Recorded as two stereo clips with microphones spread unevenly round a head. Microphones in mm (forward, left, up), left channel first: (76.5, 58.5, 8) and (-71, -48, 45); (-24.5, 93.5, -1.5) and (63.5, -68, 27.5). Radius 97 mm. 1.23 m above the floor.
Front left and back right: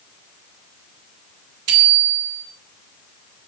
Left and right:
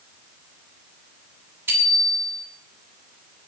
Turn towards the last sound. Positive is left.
turn(degrees=-140)